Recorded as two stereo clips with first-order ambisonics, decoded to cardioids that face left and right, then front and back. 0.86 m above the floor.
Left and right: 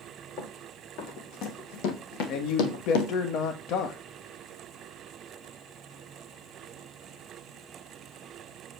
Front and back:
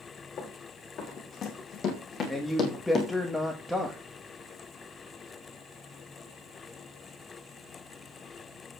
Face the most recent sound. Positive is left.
turn(degrees=85)